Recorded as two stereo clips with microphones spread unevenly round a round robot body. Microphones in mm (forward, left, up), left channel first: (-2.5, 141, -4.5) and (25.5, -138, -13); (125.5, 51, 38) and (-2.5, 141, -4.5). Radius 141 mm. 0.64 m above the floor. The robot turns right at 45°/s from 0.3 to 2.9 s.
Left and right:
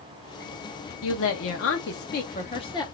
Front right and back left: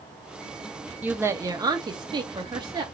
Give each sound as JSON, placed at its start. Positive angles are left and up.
{"t": 1.0, "sound": "a woman speaking", "azimuth_deg": 90, "distance_m": 0.6}